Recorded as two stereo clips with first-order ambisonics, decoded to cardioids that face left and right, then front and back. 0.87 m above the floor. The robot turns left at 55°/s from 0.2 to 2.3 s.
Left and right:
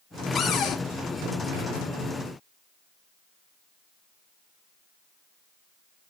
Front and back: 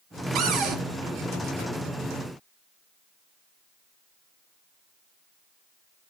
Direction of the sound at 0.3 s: 160° left.